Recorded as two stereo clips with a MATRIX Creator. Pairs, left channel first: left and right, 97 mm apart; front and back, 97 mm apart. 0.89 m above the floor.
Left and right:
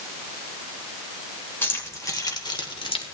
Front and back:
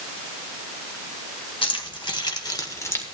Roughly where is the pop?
I don't hear a pop.